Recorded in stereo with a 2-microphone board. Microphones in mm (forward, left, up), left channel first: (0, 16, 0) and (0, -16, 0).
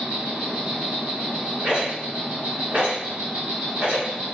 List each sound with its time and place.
0.0 s an insect: 55° right (ahead or behind), 1.4 m
1.6 s a rattle: 60° right (ahead or behind), 2 m